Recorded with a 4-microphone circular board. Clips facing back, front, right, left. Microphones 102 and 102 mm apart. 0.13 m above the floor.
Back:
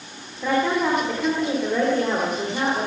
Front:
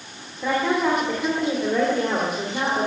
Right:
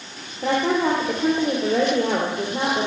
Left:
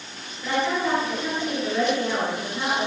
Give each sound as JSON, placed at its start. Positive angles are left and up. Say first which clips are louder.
{"t": 0.4, "sound": "a woman speaking", "louder": "even, right 4 dB", "azimuth_deg": -85, "distance_m": 3.5}